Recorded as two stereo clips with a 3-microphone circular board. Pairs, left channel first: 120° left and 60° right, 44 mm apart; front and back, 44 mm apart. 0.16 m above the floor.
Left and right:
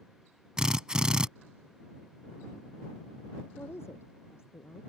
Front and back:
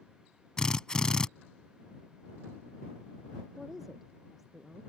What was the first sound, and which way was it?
A drill, 25° right.